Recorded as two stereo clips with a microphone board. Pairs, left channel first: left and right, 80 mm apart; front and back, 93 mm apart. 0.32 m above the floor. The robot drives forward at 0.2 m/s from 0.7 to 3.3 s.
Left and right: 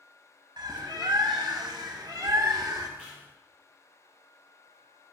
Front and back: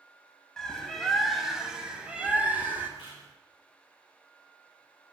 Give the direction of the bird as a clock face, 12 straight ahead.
3 o'clock.